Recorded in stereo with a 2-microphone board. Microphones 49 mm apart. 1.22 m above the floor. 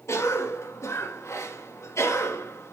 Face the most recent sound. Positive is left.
turn(degrees=80)